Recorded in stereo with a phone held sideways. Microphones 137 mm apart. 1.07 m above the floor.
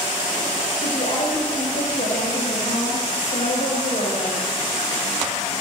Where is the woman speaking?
85° left, 5 m; by 4.5 s 65° left (ahead or behind), 5.5 m.